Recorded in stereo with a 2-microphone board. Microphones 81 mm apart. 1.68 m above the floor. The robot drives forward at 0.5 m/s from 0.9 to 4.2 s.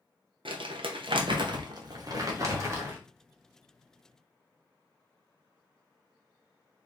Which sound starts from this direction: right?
Crumpling, at 0.5 s.